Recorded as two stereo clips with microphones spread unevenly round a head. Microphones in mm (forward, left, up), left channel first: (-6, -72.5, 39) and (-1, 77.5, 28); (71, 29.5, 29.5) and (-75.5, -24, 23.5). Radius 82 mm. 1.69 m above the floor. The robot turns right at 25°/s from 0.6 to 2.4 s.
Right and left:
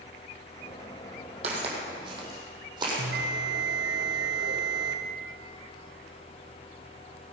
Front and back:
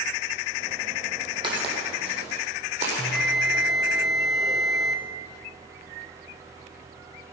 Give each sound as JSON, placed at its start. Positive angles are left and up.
{"t": 1.4, "sound": "footsteps", "azimuth_deg": 140, "distance_m": 3.5}
{"t": 3.0, "sound": "a bell", "azimuth_deg": 110, "distance_m": 1.2}